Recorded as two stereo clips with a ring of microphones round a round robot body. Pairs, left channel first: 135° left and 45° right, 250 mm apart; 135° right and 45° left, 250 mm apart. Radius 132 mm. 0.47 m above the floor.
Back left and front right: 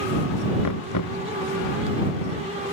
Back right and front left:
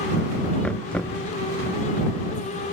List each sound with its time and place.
0.6 s knocking: 140° left